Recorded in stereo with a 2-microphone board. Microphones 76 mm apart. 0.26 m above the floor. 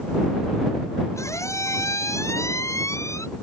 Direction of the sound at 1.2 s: 40° left (ahead or behind).